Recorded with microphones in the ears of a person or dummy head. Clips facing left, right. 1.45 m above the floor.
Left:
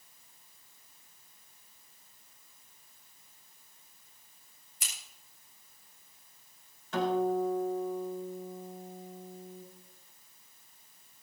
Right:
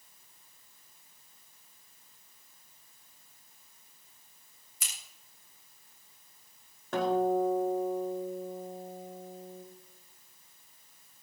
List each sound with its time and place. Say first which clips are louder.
4.8 s scissors: even; 70° right (ahead or behind), 7 m
6.9 s a guitar: right 2 dB; 55° right (ahead or behind), 4.5 m